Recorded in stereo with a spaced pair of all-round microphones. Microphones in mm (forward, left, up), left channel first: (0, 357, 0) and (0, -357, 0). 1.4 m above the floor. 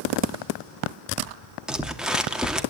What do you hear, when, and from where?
1.7 s crumpling: centre (ahead or behind), 2.5 m